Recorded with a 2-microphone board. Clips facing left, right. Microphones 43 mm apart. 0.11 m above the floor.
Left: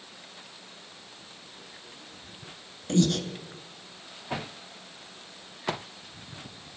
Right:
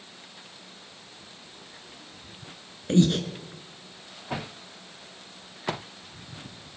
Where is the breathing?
25° right (ahead or behind), 0.5 m.